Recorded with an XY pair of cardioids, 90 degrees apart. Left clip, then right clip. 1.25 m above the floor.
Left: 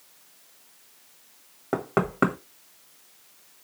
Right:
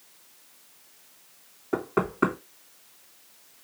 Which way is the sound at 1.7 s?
65° left.